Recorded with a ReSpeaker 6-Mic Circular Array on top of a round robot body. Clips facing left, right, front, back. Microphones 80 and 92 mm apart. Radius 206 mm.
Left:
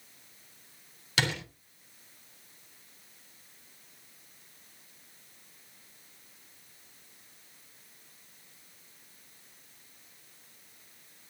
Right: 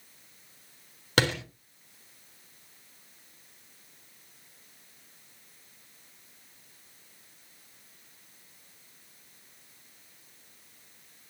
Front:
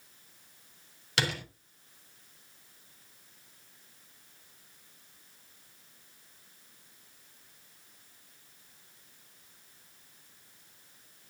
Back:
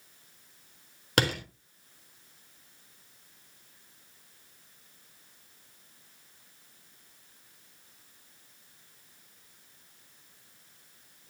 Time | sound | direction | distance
1.2 | a door slam | 135° right | 4 m